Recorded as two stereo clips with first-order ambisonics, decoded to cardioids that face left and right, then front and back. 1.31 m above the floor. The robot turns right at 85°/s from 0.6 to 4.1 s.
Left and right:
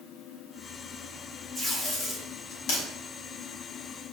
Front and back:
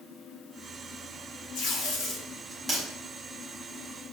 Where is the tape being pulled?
Straight ahead, 3.5 m; by 2.8 s 110° left, 3.5 m.